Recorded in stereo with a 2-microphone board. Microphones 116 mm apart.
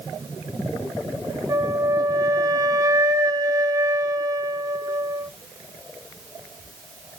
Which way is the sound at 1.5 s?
30° right (ahead or behind).